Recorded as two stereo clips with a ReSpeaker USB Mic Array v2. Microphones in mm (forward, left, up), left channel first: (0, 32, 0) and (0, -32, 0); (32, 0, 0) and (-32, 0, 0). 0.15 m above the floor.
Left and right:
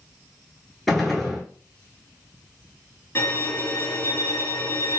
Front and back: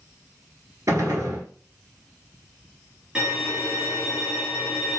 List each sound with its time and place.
0.9 s a gunshot: 175° left, 0.9 m
3.1 s a violin: 110° left, 1.5 m